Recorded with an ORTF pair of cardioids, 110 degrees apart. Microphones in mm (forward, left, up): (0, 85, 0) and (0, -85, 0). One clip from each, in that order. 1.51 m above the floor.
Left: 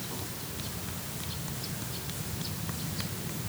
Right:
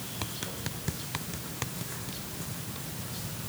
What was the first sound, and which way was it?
Only background noise.